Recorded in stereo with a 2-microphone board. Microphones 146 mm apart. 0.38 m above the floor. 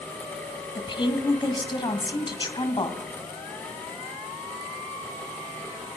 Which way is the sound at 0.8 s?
35° left (ahead or behind).